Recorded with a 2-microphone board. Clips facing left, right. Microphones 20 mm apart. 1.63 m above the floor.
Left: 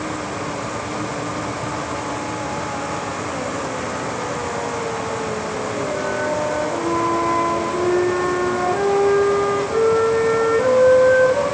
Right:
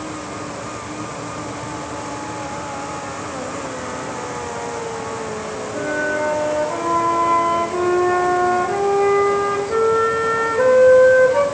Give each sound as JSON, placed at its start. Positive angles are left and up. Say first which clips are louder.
{"t": 5.7, "sound": "a flute", "louder": "right 4 dB", "side_deg": -55, "distance_m": 9.5}